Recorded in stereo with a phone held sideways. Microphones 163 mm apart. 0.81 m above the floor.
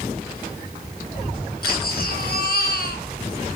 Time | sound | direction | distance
1.6 | a baby crying | 70° left (ahead or behind) | 3.5 m